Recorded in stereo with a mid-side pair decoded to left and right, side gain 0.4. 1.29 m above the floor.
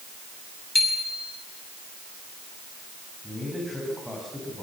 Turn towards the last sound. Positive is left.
turn(degrees=5)